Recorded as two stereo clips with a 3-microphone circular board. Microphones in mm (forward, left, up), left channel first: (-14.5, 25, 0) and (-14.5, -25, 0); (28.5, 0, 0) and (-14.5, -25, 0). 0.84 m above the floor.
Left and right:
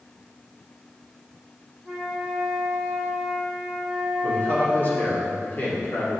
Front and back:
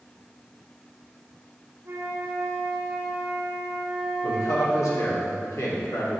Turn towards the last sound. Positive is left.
turn(degrees=40)